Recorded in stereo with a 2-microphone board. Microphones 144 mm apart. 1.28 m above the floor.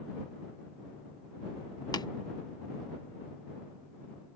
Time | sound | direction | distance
1.9 | tapping | 30° left (ahead or behind) | ?